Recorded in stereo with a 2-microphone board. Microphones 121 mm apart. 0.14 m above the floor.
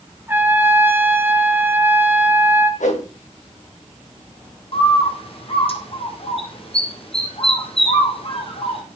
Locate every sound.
0.3 s a trumpet: 15° right (ahead or behind), 2.5 m
2.8 s a whoosh: 80° left, 7.5 m
4.7 s a bird: 50° left (ahead or behind), 5.5 m